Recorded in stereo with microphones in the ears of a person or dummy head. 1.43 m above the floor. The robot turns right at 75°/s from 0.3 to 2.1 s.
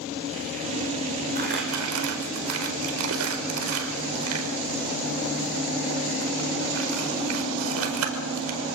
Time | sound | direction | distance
1.4 | crumpling | 45° right (ahead or behind) | 5 m